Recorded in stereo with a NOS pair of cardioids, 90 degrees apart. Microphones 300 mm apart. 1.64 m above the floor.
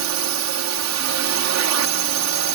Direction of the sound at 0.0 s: 60° right.